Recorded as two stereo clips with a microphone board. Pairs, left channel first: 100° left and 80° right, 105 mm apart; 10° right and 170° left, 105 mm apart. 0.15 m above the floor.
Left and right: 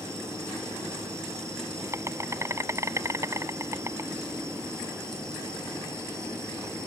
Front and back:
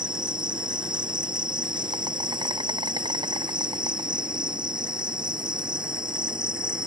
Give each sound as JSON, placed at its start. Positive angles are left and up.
{"t": 0.0, "sound": "an insect", "azimuth_deg": -145}